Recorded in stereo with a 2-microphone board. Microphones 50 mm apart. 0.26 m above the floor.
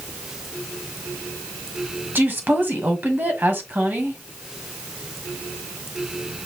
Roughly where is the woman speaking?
Right.